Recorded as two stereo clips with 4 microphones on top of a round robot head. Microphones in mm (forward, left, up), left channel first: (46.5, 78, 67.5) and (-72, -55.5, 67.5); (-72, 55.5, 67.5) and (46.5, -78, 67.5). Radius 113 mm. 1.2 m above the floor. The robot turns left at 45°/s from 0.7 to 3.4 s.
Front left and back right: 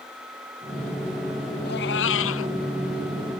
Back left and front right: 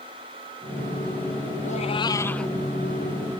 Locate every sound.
1.6 s a cat meowing: 80° left; by 2.5 s 40° left